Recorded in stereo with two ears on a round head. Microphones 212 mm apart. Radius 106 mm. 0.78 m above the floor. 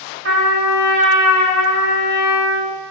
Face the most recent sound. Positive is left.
turn(degrees=-50)  # may be behind; listen again after turning